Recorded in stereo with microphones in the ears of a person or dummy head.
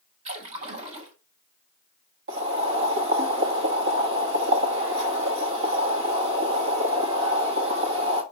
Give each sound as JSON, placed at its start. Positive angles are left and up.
{"t": 0.2, "sound": "a splash", "side_deg": -30, "distance_m": 1.3}
{"t": 2.3, "sound": "boiling", "side_deg": -55, "distance_m": 1.5}